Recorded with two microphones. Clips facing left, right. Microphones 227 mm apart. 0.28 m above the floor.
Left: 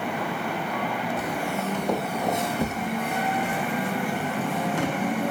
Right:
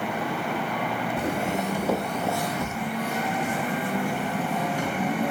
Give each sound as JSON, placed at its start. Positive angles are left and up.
{"t": 1.2, "sound": "footsteps", "side_deg": -30, "distance_m": 0.8}